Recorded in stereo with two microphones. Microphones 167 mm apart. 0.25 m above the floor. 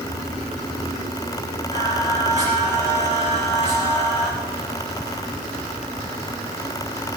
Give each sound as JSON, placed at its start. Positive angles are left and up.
{"t": 1.7, "sound": "singing", "side_deg": -45, "distance_m": 8.0}